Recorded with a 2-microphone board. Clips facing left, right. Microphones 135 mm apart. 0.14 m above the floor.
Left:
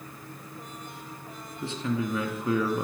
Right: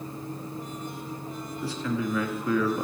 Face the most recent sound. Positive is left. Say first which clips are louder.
# even
turn(degrees=25)  # may be behind; listen again after turning